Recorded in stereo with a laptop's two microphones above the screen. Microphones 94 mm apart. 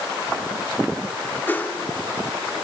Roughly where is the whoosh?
Left.